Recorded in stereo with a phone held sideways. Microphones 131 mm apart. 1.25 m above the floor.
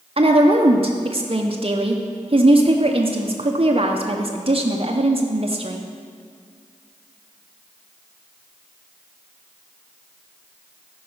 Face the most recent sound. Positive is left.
turn(degrees=-45)  # may be behind; listen again after turning